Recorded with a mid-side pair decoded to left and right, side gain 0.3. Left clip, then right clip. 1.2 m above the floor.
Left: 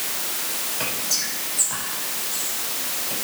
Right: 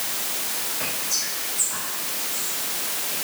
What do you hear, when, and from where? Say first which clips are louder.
0.8 s whispering: left 2 dB; 65° left, 5.5 m